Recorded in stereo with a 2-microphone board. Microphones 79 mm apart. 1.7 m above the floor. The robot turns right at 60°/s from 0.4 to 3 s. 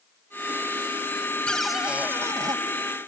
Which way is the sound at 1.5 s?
170° left.